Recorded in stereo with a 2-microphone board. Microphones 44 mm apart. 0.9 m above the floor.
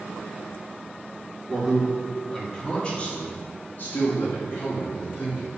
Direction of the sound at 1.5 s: 5° right (ahead or behind).